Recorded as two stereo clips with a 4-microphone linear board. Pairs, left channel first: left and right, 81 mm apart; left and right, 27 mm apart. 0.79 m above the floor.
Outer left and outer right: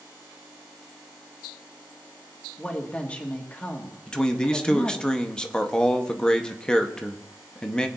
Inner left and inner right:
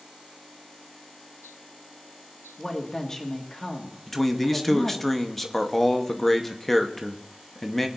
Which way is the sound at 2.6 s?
20° left (ahead or behind).